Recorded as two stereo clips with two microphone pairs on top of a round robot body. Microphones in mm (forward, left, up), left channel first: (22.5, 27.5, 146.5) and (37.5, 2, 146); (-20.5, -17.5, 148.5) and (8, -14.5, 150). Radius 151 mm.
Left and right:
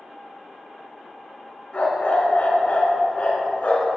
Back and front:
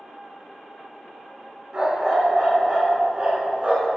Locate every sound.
1.7 s a dog barking: 65° left, 3 m